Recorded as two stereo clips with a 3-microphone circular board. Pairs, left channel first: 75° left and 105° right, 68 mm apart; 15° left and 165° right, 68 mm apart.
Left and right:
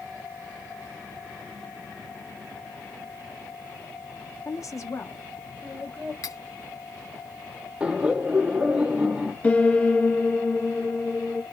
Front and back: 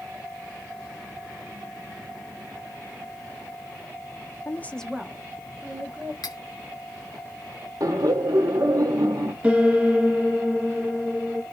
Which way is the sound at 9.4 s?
135° left.